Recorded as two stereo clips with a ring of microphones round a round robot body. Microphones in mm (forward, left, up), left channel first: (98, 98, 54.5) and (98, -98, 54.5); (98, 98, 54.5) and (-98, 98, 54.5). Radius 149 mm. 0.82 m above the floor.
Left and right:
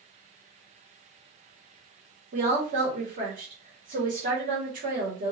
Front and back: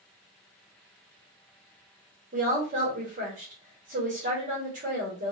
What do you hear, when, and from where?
2.3 s a woman speaking: 135° right, 1.4 m